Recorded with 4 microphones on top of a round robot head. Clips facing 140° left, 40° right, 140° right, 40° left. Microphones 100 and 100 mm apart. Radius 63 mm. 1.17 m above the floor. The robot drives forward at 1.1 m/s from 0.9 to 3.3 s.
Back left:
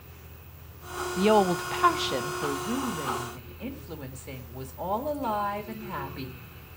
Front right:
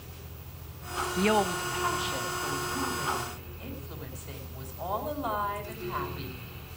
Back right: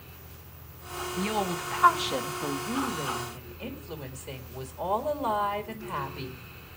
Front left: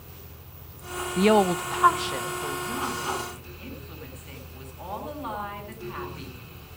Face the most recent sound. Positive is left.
turn(degrees=165)